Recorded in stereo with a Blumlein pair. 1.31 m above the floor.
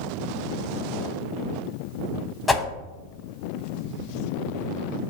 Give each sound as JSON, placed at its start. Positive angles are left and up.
{"t": 2.5, "sound": "a whoosh", "azimuth_deg": 5, "distance_m": 0.6}